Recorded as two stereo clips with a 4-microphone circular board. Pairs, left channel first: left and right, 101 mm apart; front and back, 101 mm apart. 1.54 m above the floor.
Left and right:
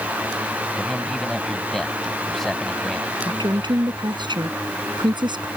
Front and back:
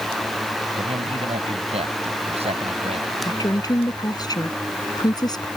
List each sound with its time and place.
0.8 s a man speaking: 175° left
3.2 s a woman speaking: 50° right